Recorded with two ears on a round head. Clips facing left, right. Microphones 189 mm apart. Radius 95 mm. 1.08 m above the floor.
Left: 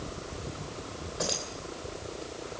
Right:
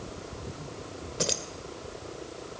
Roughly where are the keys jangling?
Right.